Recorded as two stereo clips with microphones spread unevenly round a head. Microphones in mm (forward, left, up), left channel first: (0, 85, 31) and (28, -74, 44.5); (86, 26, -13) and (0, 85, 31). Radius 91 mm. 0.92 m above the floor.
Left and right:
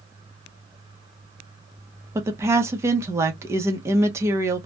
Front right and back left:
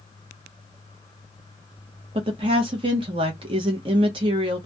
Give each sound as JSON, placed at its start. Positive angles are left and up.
{"t": 2.1, "sound": "a woman speaking", "azimuth_deg": -155, "distance_m": 0.8}